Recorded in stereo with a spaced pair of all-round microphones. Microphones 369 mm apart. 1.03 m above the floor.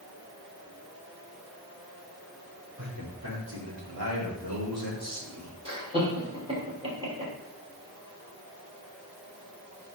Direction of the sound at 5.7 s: 15° right (ahead or behind).